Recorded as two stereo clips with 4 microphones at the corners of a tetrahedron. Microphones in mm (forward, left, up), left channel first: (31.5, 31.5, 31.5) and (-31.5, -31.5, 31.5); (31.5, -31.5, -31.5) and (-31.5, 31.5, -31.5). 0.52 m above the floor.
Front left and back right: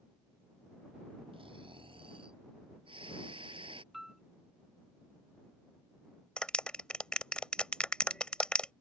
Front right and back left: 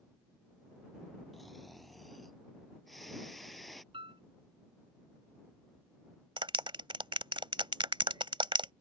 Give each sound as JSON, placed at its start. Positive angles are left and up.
{"t": 1.3, "sound": "snoring", "azimuth_deg": -135}
{"t": 3.9, "sound": "a piano", "azimuth_deg": 140}
{"t": 6.4, "sound": "a clap", "azimuth_deg": 125}